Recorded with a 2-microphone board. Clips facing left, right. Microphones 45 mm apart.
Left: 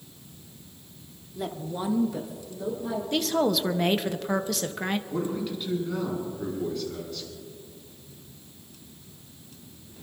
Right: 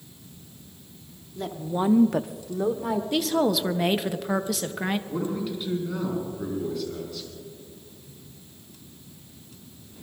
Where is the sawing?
I don't hear sawing.